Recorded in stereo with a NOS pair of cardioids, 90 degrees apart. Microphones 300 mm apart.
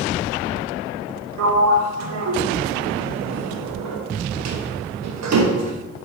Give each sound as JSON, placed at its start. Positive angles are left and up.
{"t": 1.4, "sound": "a sliding door", "azimuth_deg": -60, "distance_m": 1.0}